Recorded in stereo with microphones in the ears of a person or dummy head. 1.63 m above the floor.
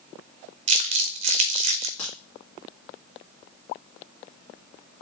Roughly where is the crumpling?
Right.